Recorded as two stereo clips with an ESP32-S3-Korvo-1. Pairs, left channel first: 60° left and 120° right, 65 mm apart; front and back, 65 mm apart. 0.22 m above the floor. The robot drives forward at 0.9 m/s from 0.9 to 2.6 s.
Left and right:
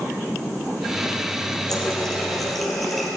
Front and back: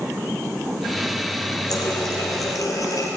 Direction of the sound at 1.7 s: 25° right.